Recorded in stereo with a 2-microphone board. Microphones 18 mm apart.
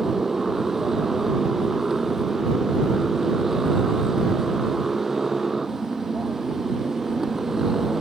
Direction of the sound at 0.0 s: 20° right (ahead or behind).